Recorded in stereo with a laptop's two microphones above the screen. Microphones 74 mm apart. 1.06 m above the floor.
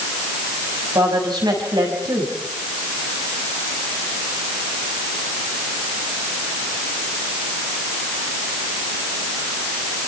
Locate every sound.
0.9 s a woman speaking: 80° right, 6 m